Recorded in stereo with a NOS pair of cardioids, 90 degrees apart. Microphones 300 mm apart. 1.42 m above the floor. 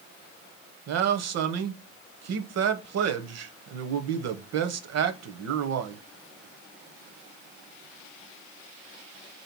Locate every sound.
0.9 s a man speaking: 60° right, 0.8 m